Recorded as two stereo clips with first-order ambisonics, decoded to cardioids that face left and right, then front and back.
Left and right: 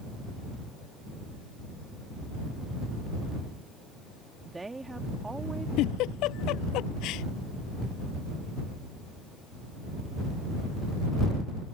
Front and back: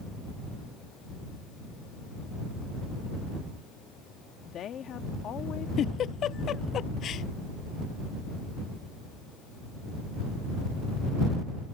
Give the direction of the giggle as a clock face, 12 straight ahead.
10 o'clock.